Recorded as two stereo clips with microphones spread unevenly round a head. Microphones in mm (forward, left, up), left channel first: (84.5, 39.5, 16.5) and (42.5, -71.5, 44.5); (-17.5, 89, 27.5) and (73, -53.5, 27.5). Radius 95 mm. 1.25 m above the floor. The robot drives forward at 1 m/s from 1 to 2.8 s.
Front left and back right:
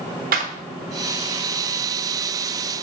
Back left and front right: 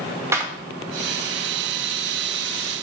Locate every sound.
0.3 s a clap: 135° right, 1.2 m